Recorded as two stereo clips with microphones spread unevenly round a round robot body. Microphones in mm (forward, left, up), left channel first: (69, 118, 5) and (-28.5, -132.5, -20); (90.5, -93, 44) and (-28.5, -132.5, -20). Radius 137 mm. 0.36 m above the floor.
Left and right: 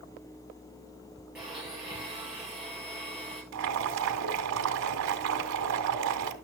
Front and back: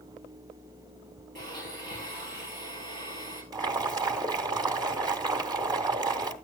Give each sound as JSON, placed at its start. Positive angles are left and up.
{"t": 1.4, "sound": "a blender", "azimuth_deg": 160, "distance_m": 9.0}
{"t": 3.5, "sound": "boiling", "azimuth_deg": -135, "distance_m": 1.9}